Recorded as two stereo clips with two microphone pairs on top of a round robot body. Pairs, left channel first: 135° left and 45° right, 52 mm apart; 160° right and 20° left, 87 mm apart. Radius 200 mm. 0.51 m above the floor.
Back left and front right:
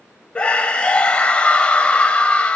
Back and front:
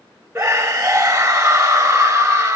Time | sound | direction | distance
0.3 | a scream | 85° left | 1.0 m